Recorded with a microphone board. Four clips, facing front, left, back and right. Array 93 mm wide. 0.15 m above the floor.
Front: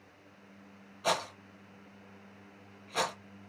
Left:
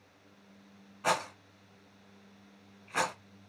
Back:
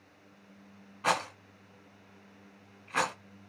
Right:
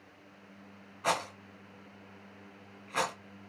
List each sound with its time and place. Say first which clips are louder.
1.0 s a rattle: left 1 dB, back 2 dB; 175° left, 1.3 m